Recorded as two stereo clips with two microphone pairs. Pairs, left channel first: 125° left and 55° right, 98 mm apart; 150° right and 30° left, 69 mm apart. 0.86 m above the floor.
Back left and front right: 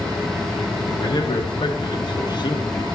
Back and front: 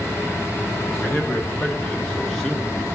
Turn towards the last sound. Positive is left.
turn(degrees=115)